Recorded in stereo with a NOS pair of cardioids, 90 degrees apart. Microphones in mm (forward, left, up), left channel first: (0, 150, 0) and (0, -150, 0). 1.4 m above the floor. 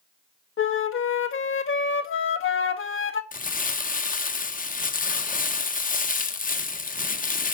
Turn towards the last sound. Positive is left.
turn(degrees=30)